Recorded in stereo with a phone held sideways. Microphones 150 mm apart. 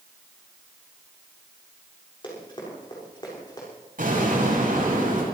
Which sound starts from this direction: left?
Running footsteps, at 2.2 s.